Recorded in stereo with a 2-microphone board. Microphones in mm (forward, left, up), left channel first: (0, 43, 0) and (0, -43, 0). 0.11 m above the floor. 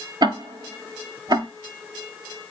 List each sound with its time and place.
0.2 s ticking: 50° right (ahead or behind), 1.0 m